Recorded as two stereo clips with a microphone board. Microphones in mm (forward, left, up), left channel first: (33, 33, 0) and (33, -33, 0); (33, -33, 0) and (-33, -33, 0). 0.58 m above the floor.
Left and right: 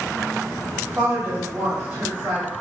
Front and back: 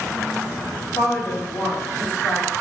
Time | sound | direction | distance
1.0 | a woman speaking | 30° right | 1.9 m